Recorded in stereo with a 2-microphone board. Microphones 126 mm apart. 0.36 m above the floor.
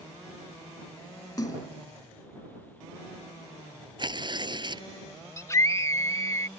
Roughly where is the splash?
Left.